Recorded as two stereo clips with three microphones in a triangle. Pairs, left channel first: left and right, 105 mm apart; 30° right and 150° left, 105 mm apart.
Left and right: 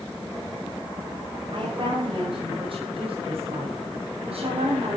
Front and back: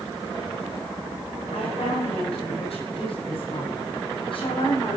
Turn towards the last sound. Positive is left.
turn(degrees=-65)